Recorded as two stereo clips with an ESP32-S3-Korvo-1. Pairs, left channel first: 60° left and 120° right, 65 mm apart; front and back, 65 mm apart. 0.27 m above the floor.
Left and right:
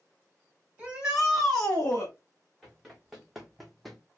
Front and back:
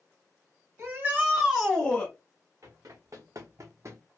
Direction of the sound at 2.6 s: 150° left.